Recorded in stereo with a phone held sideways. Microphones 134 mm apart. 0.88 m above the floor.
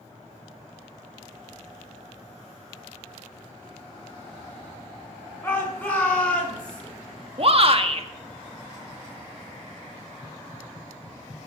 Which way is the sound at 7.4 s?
45° right (ahead or behind).